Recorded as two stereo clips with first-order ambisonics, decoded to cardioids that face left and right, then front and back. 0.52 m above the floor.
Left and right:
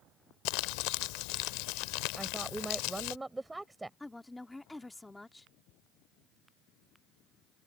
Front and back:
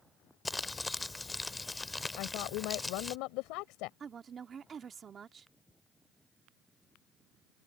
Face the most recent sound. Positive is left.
turn(degrees=165)